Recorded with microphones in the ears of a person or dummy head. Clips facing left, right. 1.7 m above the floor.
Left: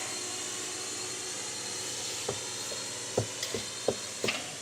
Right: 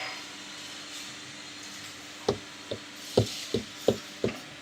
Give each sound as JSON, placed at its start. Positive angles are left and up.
{"t": 0.0, "sound": "a drone", "side_deg": 55}
{"t": 2.3, "sound": "running footsteps", "side_deg": -50}